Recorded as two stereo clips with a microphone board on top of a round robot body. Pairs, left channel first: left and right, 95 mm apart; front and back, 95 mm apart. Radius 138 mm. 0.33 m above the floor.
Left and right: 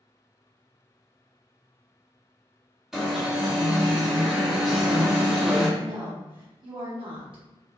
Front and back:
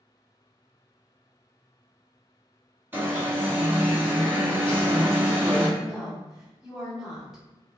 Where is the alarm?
170° right, 1.4 m.